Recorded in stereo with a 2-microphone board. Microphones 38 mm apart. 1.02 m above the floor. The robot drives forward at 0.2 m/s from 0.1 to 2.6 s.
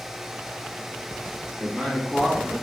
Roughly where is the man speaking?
Centre.